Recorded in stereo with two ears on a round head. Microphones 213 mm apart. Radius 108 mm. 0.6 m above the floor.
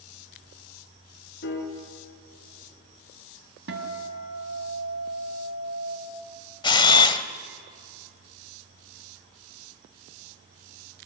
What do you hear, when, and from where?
1.4 s a piano: 45° left (ahead or behind), 3 m
3.7 s a guitar: 50° right (ahead or behind), 2 m
6.6 s a camera shutter: 20° left (ahead or behind), 0.9 m